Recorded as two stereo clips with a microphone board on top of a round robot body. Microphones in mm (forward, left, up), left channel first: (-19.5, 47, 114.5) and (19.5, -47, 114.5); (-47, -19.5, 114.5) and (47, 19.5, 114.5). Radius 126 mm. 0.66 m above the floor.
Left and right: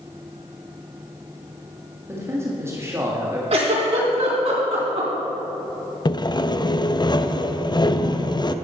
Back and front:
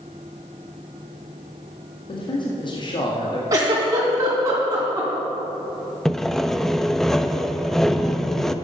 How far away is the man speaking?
About 1.8 m.